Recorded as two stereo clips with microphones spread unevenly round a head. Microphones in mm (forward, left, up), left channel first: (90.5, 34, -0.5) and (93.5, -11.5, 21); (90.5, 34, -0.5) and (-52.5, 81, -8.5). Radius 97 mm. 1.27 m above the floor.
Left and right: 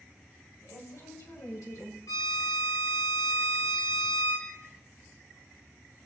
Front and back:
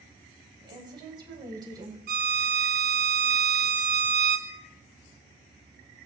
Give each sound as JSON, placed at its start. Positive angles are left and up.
{"t": 0.6, "sound": "a woman speaking", "azimuth_deg": 105, "distance_m": 8.5}
{"t": 2.1, "sound": "a violin", "azimuth_deg": 150, "distance_m": 3.0}